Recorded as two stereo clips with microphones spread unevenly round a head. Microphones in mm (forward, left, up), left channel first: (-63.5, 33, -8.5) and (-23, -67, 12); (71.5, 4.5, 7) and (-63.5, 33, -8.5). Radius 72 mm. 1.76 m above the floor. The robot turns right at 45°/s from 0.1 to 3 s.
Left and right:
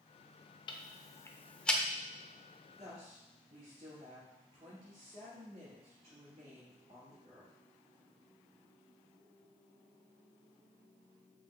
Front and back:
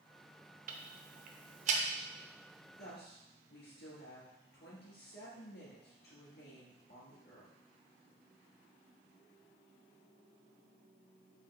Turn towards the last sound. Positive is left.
turn(degrees=-15)